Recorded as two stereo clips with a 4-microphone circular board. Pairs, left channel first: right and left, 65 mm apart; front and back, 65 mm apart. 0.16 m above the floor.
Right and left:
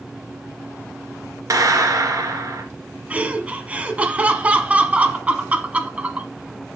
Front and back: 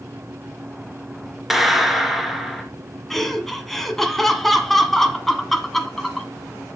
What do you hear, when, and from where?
1.5 s a clap: 95° left, 1.9 m
3.1 s laughter: 80° left, 1.3 m